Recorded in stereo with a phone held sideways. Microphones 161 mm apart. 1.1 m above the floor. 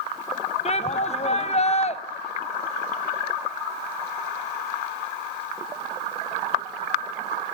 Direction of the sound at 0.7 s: 45° left (ahead or behind).